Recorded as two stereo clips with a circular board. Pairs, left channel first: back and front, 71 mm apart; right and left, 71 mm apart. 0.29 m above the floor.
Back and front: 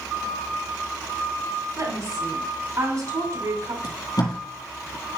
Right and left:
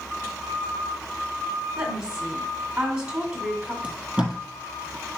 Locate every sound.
1.8 s a woman speaking: 15° left, 2.5 m
3.8 s tape being pulled: 165° left, 3 m